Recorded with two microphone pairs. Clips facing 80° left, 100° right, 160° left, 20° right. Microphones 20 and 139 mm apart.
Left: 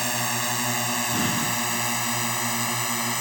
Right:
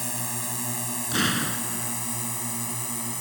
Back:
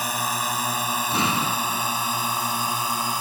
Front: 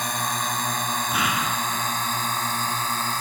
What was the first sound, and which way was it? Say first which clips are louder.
A drone: left 8 dB, back 1 dB; 80° left.